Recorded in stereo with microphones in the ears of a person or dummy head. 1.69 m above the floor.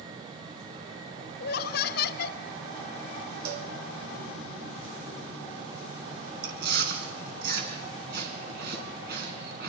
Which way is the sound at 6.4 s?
65° right (ahead or behind).